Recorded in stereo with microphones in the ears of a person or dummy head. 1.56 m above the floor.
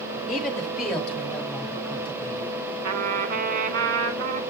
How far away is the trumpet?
About 1.8 m.